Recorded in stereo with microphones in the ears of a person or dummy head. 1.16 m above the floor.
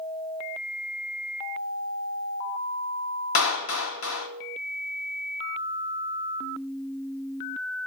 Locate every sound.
3.4 s a clap: 75° left (ahead or behind), 1.7 m